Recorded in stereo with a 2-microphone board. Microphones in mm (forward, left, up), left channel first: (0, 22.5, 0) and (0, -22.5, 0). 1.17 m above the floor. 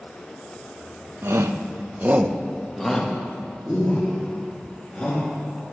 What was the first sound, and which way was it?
A shout, 70° right (ahead or behind).